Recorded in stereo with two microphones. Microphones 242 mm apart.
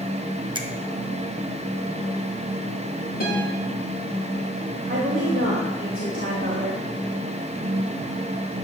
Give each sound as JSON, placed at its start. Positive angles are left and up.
{"t": 0.6, "sound": "a finger snap", "side_deg": -20, "distance_m": 0.9}
{"t": 3.2, "sound": "a guitar", "side_deg": 40, "distance_m": 5.5}
{"t": 4.9, "sound": "a woman speaking", "side_deg": -55, "distance_m": 2.0}